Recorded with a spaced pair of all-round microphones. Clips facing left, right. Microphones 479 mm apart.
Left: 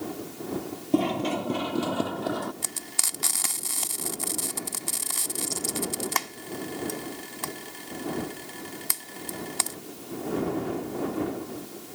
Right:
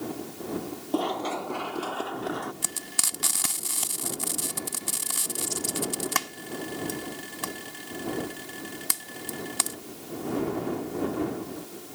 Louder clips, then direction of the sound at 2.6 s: Right 1 dB; 30° right (ahead or behind).